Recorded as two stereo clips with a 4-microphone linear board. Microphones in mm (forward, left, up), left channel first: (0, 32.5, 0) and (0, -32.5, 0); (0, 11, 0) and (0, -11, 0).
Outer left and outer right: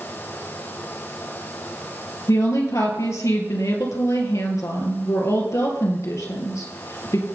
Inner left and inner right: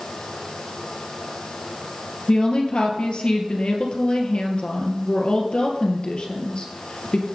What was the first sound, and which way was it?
A woman speaking, 55° left (ahead or behind).